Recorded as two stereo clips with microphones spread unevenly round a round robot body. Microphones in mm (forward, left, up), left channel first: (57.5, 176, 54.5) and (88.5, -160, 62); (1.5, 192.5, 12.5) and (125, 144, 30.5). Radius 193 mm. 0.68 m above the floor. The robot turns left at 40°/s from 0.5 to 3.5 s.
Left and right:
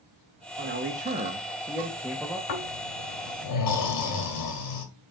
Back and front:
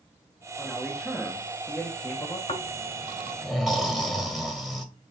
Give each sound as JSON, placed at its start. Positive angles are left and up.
{"t": 0.6, "sound": "a man speaking", "azimuth_deg": -110, "distance_m": 0.8}
{"t": 2.5, "sound": "snoring", "azimuth_deg": 110, "distance_m": 2.0}